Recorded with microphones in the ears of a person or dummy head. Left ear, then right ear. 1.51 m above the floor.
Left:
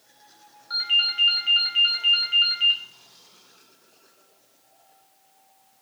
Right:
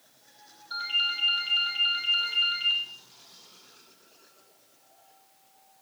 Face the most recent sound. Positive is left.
turn(degrees=60)  # may be behind; listen again after turning